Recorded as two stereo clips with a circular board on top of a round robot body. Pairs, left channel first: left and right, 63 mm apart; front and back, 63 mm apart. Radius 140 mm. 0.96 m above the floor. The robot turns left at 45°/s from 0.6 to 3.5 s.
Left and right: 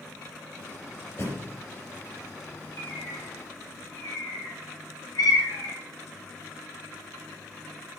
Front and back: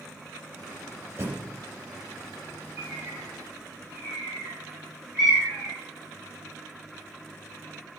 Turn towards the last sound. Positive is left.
turn(degrees=100)